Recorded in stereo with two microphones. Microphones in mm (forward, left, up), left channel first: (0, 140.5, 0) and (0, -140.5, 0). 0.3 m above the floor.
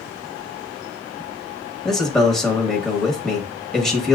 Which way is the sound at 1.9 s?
Centre (ahead or behind).